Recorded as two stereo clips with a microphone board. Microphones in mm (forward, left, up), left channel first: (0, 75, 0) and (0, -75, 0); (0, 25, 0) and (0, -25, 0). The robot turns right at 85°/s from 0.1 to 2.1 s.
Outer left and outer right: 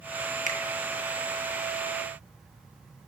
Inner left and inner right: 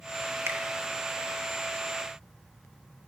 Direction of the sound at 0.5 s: 55° right (ahead or behind).